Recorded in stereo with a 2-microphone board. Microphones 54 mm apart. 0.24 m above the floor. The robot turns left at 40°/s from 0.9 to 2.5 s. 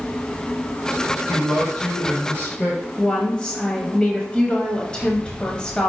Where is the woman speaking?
20° left (ahead or behind), 0.9 m.